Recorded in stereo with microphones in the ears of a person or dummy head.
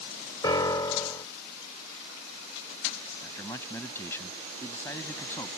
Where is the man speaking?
15° left (ahead or behind).